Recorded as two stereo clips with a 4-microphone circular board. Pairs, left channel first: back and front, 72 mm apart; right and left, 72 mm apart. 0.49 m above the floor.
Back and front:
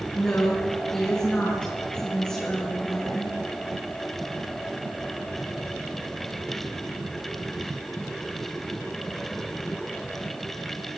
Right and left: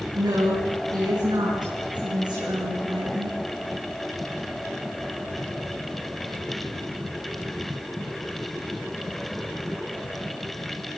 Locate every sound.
0.1 s a woman speaking: 105° left, 7.5 m